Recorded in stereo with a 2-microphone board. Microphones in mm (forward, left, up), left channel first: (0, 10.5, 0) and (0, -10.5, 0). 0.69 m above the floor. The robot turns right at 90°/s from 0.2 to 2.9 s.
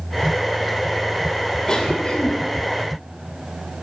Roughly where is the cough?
Ahead left.